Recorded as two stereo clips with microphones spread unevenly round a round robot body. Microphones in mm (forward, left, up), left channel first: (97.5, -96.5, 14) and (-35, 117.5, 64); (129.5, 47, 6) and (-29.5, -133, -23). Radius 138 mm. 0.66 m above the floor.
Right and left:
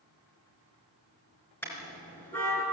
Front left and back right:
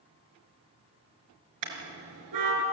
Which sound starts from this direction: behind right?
A car horn, at 1.6 s.